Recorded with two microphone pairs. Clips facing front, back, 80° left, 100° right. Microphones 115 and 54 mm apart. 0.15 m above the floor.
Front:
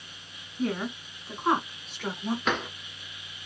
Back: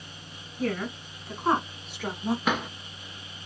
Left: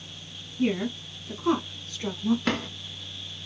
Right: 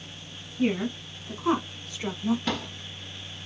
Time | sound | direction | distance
0.6 | a woman speaking | 55° right | 1.8 m
2.5 | a drawer | 105° left | 1.2 m